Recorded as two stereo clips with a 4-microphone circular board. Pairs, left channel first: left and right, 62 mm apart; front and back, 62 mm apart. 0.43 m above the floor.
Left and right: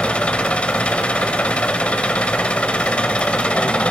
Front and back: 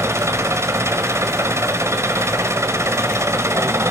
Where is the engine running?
155° left, 2 m.